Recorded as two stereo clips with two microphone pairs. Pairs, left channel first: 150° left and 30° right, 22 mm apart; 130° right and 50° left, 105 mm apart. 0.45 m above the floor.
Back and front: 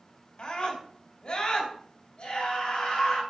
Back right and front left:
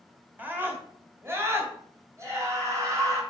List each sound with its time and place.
0.4 s a scream: 120° left, 2 m; by 3.2 s 105° left, 3.5 m